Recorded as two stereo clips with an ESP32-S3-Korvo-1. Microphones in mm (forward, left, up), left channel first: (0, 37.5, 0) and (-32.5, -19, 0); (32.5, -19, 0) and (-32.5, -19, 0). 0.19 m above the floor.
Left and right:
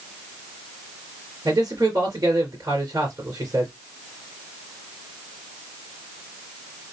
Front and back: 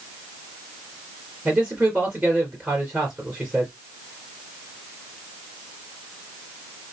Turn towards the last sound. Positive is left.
turn(degrees=-110)